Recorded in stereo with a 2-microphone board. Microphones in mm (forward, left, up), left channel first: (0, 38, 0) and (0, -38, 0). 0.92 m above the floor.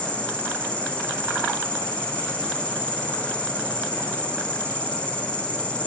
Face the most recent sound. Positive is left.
turn(degrees=15)  # may be behind; listen again after turning